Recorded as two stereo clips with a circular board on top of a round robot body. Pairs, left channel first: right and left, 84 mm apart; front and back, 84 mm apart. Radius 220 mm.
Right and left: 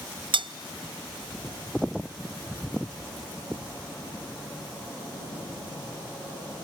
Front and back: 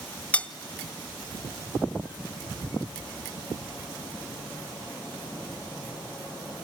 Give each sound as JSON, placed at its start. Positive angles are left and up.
{"t": 0.3, "sound": "cutlery clinking", "azimuth_deg": 75, "distance_m": 0.9}